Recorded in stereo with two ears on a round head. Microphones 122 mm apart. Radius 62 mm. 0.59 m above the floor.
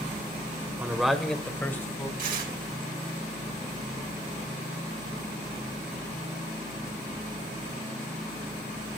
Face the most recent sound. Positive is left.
turn(degrees=-65)  # may be behind; listen again after turning